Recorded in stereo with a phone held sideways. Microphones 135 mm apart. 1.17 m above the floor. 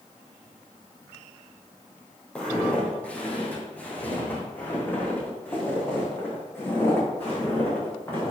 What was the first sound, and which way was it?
Footsteps, 10° left (ahead or behind).